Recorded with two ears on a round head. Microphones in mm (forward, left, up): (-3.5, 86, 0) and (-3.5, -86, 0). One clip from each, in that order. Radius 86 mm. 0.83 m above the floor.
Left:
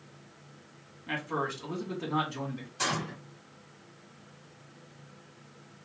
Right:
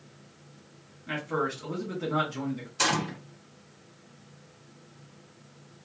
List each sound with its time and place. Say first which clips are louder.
1.1 s a man speaking: right 2 dB; 20° left (ahead or behind), 1.9 m
2.8 s a gunshot: right 5 dB; 30° right (ahead or behind), 0.9 m